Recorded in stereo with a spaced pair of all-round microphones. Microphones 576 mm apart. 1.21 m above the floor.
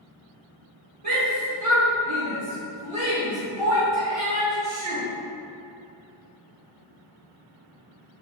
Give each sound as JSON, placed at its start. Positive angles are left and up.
{"t": 1.0, "sound": "a shout", "side_deg": -65, "distance_m": 1.5}